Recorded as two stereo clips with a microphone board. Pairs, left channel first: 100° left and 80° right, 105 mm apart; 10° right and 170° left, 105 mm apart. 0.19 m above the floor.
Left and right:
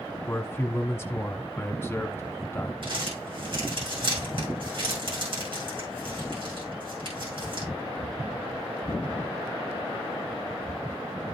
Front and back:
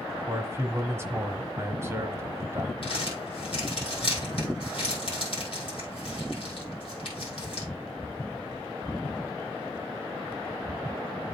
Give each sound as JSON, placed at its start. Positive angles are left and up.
{"t": 0.3, "sound": "a man speaking", "azimuth_deg": 135, "distance_m": 1.1}
{"t": 2.8, "sound": "crumpling", "azimuth_deg": -40, "distance_m": 4.5}